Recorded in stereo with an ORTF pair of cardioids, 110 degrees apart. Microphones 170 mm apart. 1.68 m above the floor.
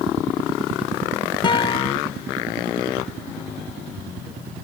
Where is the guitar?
25° left, 0.8 m.